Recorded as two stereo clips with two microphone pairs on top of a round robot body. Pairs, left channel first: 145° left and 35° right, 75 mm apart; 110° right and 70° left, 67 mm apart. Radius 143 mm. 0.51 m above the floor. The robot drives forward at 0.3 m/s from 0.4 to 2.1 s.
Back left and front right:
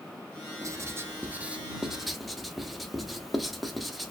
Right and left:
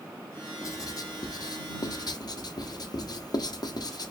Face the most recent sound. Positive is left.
turn(degrees=-125)